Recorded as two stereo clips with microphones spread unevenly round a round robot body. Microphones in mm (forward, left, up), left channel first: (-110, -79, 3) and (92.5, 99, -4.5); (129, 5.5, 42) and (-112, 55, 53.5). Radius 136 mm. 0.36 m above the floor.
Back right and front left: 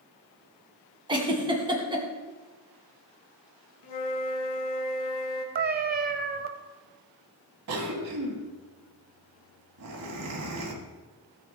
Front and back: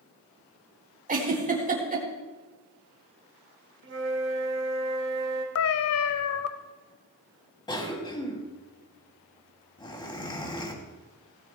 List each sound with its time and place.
1.1 s a giggle: 110° left, 2.5 m
3.8 s a flute: 155° right, 2.5 m
5.5 s a cat meowing: 15° right, 0.9 m
7.7 s a cough: 60° left, 3 m